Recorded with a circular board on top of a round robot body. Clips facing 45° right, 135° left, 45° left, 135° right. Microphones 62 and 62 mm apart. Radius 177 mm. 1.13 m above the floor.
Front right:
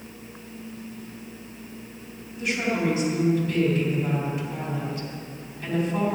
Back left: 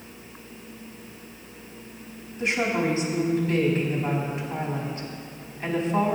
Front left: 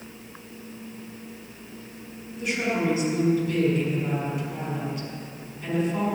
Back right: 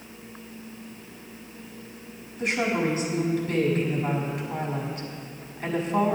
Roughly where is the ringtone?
No ringtone in this recording.